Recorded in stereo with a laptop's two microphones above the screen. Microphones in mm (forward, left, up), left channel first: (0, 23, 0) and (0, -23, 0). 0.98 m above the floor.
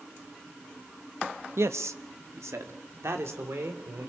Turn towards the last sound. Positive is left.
turn(degrees=-70)  # may be behind; listen again after turning